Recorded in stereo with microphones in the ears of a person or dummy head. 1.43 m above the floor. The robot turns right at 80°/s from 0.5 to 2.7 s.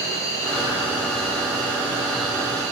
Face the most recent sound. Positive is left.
turn(degrees=-135)